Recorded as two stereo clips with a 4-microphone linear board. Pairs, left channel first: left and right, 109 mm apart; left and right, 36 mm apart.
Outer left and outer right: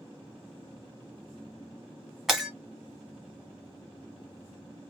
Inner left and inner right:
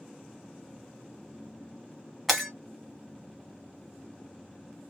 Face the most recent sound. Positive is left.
turn(degrees=0)  # may be behind; listen again after turning